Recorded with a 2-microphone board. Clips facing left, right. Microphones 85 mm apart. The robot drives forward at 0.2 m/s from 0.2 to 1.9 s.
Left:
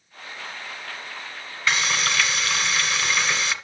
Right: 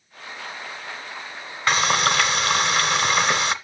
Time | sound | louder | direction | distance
1.7 | frying | right 4 dB | 50° right (ahead or behind) | 1.3 m